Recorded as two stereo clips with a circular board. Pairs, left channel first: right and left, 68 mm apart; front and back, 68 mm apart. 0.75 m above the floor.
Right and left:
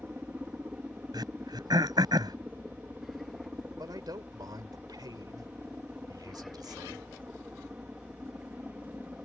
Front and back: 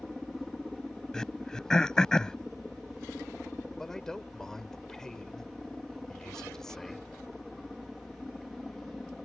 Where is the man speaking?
80° left.